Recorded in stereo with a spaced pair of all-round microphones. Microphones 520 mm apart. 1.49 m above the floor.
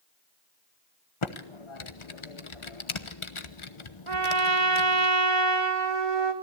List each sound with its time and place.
1.2 s typing on a keyboard: 65° left (ahead or behind), 1.1 m
4.1 s a trumpet: 85° right, 1.8 m